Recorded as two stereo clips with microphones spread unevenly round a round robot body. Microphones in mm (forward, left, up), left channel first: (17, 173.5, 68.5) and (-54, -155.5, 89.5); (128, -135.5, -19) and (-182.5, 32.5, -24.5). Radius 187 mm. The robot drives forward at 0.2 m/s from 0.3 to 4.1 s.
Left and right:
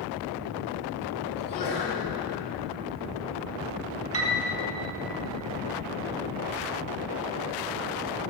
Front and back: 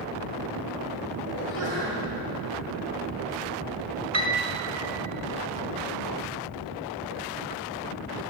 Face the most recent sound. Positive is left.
turn(degrees=-150)